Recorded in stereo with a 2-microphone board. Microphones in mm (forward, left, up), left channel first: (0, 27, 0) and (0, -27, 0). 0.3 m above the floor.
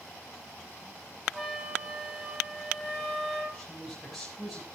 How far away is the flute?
About 9 m.